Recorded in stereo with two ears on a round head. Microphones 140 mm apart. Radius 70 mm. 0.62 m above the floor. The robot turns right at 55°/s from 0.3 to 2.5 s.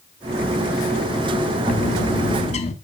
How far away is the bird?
About 1.1 m.